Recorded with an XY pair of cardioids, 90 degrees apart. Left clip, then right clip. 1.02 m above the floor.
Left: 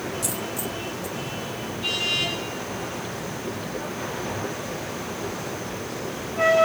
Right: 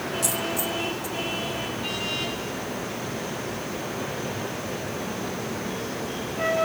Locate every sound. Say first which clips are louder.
0.2 s a dropped coin: right 3 dB; 15° right, 1.7 m